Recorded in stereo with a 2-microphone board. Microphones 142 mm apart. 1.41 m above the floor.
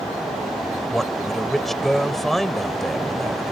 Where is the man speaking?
Centre (ahead or behind).